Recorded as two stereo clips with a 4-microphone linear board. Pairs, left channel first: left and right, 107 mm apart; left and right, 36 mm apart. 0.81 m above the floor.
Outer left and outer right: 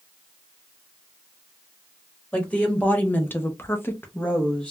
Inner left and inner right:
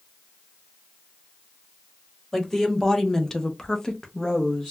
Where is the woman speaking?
10° left (ahead or behind), 1.3 m; by 4.7 s 5° left (ahead or behind), 0.8 m.